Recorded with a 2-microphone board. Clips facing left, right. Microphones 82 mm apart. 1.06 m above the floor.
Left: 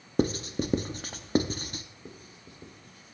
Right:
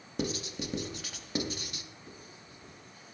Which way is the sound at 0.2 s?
40° left (ahead or behind).